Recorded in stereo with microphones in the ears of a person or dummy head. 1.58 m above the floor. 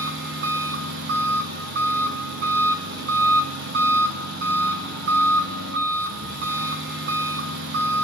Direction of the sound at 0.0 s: 60° right (ahead or behind).